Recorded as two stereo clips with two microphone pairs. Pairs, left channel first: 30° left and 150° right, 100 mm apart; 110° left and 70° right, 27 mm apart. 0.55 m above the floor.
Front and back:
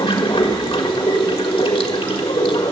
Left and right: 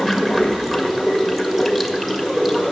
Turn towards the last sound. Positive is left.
turn(degrees=15)